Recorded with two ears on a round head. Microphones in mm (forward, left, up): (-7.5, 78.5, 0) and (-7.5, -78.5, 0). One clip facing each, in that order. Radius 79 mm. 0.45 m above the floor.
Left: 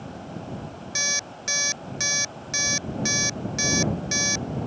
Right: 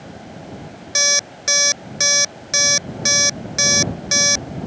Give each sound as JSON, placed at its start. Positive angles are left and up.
{"t": 0.9, "sound": "an alarm clock", "side_deg": -70}